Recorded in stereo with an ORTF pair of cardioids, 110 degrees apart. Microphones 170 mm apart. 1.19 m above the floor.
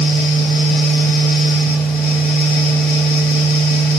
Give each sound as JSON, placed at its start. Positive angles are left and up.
{"t": 0.0, "sound": "a fan", "azimuth_deg": 70, "distance_m": 1.5}